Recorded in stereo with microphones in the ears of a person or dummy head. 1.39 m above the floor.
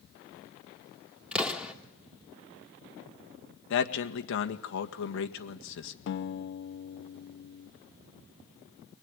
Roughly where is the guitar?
Left.